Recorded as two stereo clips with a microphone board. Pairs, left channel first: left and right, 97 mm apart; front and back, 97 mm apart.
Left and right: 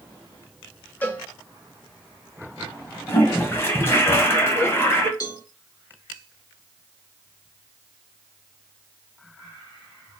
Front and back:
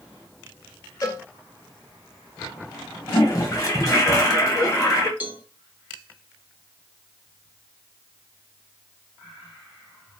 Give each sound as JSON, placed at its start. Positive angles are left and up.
{"t": 1.0, "sound": "a cowbell", "azimuth_deg": 30, "distance_m": 0.8}
{"t": 3.1, "sound": "a toilet flushing", "azimuth_deg": 35, "distance_m": 1.2}
{"t": 5.2, "sound": "a cowbell", "azimuth_deg": 115, "distance_m": 0.8}